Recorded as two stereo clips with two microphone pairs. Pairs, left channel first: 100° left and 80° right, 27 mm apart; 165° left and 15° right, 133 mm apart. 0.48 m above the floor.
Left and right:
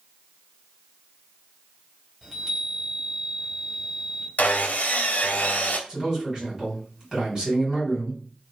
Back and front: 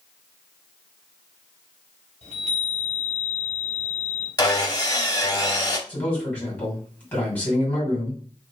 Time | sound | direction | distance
2.2 | a chime | 5° right | 1.4 m
4.4 | sawing | 105° left | 0.6 m
5.9 | a man speaking | 125° right | 2.0 m